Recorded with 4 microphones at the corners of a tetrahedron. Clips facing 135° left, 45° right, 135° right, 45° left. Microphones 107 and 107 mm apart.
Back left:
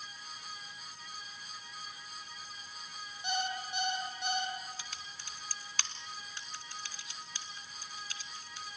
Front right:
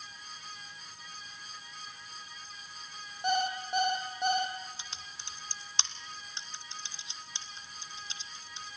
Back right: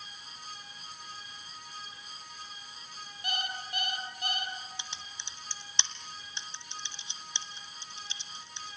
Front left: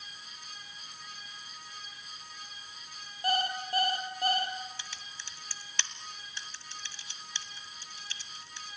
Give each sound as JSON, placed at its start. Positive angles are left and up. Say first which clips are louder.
{"t": 3.2, "sound": "an alarm clock", "louder": "front right 6 dB, front left 8 dB", "azimuth_deg": -5, "distance_m": 4.0}
{"t": 4.8, "sound": "typing on a keyboard", "louder": "even, back right 1 dB", "azimuth_deg": -85, "distance_m": 1.6}